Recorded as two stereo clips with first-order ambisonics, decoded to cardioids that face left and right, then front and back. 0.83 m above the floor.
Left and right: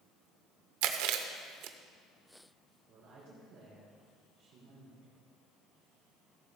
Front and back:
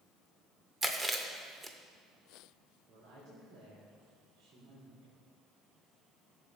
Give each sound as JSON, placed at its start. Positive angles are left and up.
{"t": 0.8, "sound": "chewing", "azimuth_deg": -100, "distance_m": 0.8}
{"t": 2.9, "sound": "a woman speaking", "azimuth_deg": -140, "distance_m": 3.0}